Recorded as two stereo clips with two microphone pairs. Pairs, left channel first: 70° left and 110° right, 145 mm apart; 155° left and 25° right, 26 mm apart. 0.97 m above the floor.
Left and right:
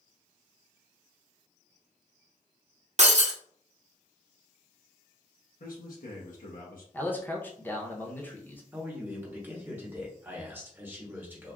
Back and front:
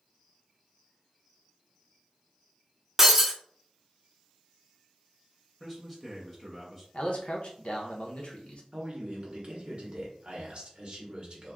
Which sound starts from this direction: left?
A man speaking, at 5.6 s.